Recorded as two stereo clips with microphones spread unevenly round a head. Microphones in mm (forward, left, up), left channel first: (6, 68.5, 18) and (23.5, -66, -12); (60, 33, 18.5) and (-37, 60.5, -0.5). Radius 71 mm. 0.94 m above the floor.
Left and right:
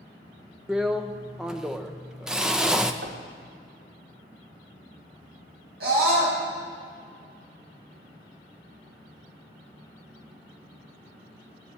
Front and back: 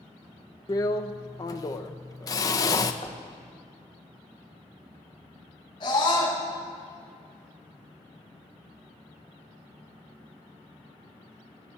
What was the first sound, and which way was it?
A drill, 40° right.